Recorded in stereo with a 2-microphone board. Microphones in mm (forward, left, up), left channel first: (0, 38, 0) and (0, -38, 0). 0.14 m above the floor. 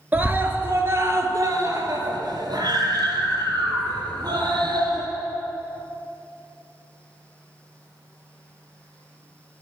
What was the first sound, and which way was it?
A scream, 20° right (ahead or behind).